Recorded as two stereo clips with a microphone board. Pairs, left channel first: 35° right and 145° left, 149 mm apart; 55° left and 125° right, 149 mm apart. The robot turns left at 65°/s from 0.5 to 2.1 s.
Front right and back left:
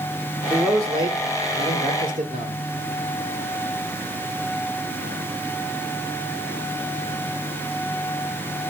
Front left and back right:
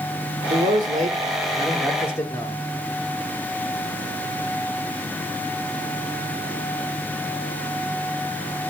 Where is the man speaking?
125° right, 2 m; by 2.6 s 130° left, 2 m.